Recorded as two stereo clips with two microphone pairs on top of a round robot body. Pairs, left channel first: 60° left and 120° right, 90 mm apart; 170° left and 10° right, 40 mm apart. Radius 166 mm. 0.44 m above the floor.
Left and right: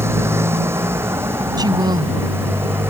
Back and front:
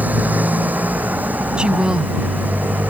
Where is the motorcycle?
55° right.